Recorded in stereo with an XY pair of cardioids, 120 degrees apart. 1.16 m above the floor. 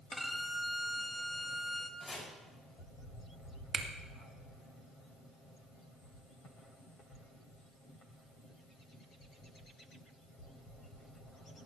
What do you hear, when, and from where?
0.1 s a violin: straight ahead, 1.6 m
2.0 s chopping: 15° left, 5.5 m
3.7 s a finger snap: 45° right, 1.7 m